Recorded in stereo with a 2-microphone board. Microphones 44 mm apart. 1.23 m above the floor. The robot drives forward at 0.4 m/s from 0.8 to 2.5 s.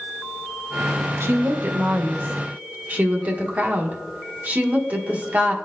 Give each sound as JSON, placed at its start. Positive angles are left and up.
{"t": 1.2, "sound": "a woman speaking", "side_deg": -70, "distance_m": 0.7}